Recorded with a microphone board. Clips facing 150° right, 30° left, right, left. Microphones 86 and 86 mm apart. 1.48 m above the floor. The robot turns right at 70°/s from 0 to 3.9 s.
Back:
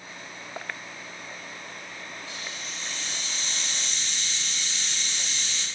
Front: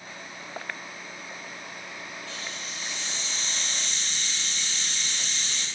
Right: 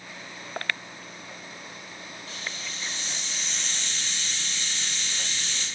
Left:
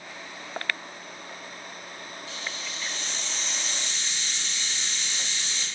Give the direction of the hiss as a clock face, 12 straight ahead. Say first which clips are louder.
Even, even; 3 o'clock.